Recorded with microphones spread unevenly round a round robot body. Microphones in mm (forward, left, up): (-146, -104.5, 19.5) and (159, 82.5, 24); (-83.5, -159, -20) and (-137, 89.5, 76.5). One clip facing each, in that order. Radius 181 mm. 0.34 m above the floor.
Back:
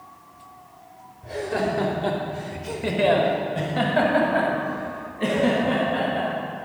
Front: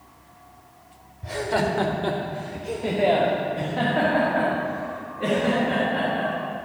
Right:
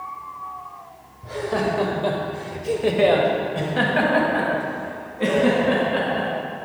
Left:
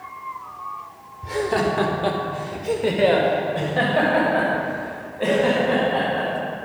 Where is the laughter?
45° left, 1.2 m; by 6.3 s 135° right, 4 m.